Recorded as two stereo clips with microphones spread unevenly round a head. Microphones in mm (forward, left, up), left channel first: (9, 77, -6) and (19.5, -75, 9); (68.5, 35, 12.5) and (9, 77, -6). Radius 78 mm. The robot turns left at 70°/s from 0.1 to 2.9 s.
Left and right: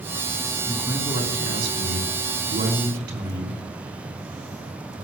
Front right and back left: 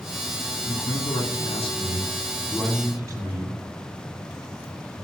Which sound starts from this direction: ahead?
A man speaking, at 0.6 s.